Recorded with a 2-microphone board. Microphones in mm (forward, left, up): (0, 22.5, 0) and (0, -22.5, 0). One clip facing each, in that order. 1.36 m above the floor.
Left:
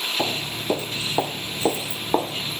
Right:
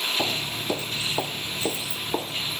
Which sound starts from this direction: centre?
Footsteps, at 0.2 s.